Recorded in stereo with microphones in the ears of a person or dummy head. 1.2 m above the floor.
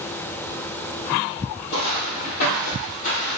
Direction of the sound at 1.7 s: 60° left (ahead or behind).